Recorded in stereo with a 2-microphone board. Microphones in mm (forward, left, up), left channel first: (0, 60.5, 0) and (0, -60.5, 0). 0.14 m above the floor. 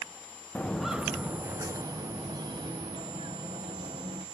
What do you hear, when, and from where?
0.6 s footsteps: 15° left (ahead or behind), 0.7 m; by 4.2 s 45° right (ahead or behind), 2.5 m